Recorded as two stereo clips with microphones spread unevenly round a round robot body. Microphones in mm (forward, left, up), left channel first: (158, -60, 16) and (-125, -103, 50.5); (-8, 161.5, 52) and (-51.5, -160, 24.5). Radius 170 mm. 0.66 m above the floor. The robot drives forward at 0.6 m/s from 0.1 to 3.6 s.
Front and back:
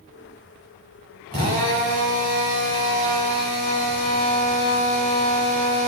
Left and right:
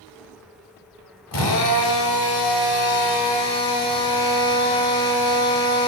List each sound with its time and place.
1.3 s a drill: 115° left, 3 m; by 5.9 s 135° left, 4 m